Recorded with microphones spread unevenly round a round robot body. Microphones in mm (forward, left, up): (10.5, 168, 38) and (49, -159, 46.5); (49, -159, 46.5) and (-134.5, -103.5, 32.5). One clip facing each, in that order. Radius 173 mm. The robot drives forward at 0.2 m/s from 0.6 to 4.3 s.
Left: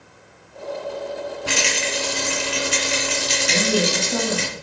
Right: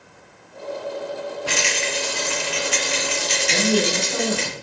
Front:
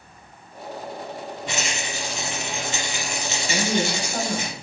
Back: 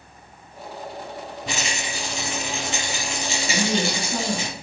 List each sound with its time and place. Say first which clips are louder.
1.5 s a rattle: left 2 dB, back 1 dB; 105° left, 2.5 m; by 4.5 s 115° left, 2.5 m
3.5 s a woman speaking: right 1 dB, even; 135° left, 4 m; by 4.5 s 140° left, 4 m